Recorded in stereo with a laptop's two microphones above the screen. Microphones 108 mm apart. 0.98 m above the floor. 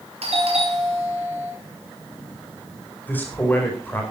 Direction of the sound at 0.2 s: 70° right (ahead or behind).